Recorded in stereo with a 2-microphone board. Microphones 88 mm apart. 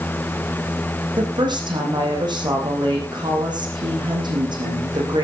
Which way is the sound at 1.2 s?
55° right (ahead or behind).